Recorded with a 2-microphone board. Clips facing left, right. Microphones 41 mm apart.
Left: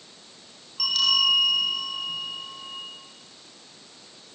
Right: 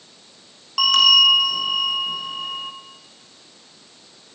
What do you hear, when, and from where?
0.8 s a bell: 80° right, 3.5 m